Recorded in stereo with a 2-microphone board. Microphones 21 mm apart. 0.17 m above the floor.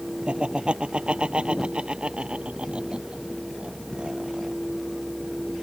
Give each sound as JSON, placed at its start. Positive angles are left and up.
{"t": 0.3, "sound": "laughter", "side_deg": -65}